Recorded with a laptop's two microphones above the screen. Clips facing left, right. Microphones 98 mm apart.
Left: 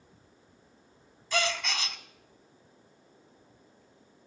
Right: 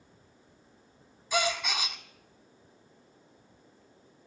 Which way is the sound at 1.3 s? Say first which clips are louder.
Right 1 dB; 10° right (ahead or behind).